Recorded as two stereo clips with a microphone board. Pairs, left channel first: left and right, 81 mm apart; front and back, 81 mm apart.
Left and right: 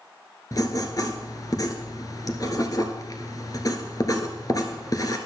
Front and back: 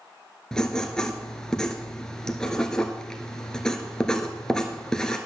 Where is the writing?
80° left, 1.3 m.